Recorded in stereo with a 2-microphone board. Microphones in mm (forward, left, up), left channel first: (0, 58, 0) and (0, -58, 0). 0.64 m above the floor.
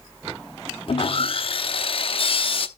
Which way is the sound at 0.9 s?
50° left (ahead or behind).